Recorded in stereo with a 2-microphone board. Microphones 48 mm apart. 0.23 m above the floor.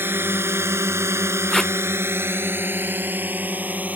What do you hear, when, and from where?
0.0 s a drone: 50° right (ahead or behind); by 4.0 s 35° right (ahead or behind)
1.5 s tape being pulled: 10° left (ahead or behind)